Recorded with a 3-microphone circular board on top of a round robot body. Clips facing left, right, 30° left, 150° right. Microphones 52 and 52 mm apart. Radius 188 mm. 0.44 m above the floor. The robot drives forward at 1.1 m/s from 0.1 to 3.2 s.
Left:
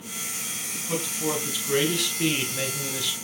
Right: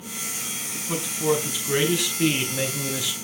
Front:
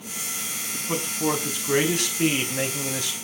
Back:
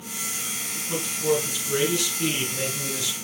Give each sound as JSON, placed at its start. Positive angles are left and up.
{"t": 0.7, "sound": "a man speaking", "azimuth_deg": -5, "distance_m": 6.0}